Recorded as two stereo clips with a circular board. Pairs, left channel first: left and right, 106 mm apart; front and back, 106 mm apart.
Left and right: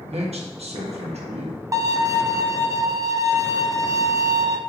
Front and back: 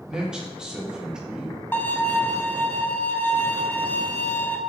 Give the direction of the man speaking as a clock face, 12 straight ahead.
3 o'clock.